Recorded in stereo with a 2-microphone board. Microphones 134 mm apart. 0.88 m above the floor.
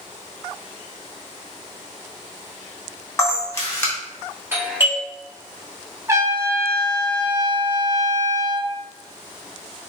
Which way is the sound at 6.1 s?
20° right (ahead or behind).